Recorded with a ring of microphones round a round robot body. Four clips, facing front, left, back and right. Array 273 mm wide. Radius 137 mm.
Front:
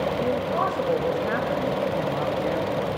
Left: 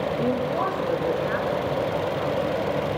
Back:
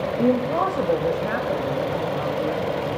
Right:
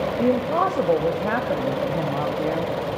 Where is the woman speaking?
145° right, 1.4 m; by 2.7 s 75° right, 3 m.